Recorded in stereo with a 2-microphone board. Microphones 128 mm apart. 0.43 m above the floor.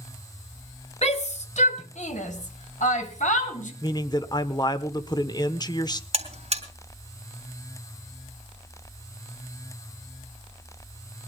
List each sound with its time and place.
1.0 s a shout: 60° left (ahead or behind), 1.8 m; by 3.7 s 75° left (ahead or behind), 3 m
3.8 s a man speaking: 35° left (ahead or behind), 0.9 m
6.1 s a buzzer: 55° right (ahead or behind), 3 m